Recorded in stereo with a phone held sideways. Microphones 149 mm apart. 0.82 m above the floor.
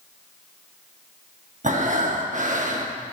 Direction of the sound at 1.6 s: 55° right (ahead or behind).